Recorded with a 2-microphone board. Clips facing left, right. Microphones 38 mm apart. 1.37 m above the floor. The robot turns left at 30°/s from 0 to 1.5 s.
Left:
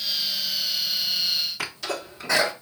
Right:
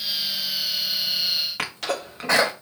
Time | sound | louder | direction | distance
1.6 | a sneeze | right 3 dB | 65° right (ahead or behind) | 1.5 m